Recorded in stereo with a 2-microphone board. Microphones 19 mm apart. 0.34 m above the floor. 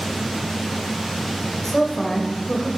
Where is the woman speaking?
15° left (ahead or behind), 1.1 m.